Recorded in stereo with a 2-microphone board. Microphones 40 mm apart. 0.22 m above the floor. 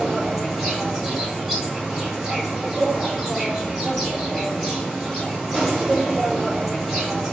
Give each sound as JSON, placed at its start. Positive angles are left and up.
{"t": 0.0, "sound": "an insect", "side_deg": -5, "distance_m": 1.2}